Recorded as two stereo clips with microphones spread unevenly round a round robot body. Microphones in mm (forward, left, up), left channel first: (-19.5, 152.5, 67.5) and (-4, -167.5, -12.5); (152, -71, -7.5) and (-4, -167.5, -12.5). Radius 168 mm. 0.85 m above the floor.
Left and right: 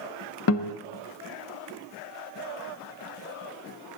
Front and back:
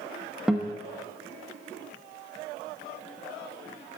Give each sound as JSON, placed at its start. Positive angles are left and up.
{"t": 0.5, "sound": "a guitar", "azimuth_deg": 125, "distance_m": 0.9}